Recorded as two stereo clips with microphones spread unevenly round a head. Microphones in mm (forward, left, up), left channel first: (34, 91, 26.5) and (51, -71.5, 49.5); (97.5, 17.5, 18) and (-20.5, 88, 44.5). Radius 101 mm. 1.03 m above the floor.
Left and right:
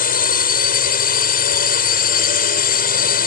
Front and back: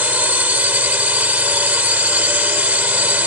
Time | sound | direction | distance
0.0 | a drone | 70° left | ?